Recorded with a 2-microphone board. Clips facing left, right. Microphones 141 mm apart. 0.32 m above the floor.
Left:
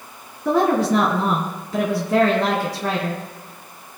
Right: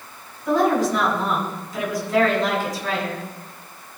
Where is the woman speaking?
70° left (ahead or behind), 3 m.